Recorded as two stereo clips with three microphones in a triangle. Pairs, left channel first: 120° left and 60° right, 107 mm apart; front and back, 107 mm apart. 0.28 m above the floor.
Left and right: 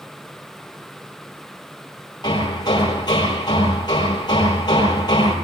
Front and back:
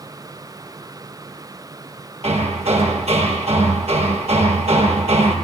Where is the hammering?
170° left, 7.5 m.